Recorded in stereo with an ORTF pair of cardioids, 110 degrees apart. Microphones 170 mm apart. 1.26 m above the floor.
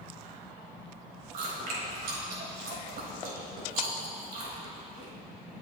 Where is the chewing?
60° right, 4.5 m.